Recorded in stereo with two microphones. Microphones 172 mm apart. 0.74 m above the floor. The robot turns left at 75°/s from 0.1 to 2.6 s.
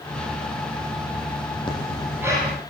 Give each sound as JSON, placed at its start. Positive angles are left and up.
{"t": 1.7, "sound": "breathing", "azimuth_deg": 30, "distance_m": 9.5}